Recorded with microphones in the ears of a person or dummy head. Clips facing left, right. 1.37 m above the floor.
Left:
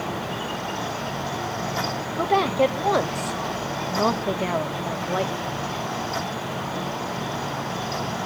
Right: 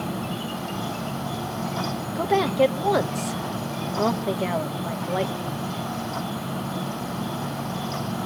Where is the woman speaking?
Centre (ahead or behind), 1.0 m.